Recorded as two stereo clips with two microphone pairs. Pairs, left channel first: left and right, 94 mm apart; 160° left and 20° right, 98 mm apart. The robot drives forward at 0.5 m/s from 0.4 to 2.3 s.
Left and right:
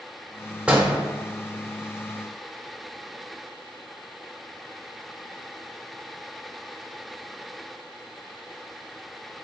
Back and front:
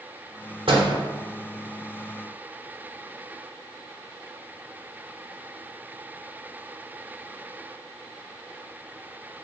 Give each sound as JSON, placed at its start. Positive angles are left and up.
{"t": 0.7, "sound": "a door slam", "azimuth_deg": -10, "distance_m": 1.1}